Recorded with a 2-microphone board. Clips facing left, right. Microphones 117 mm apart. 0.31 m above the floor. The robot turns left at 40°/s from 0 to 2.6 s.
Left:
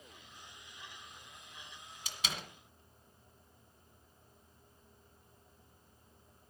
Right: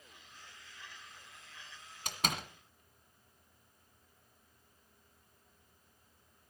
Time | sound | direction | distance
2.0 | a door slam | 60° right (ahead or behind) | 1.6 m